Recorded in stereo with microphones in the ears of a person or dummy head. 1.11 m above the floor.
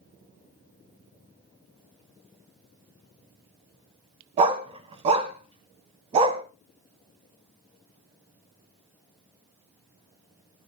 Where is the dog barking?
35° right (ahead or behind), 1.6 m.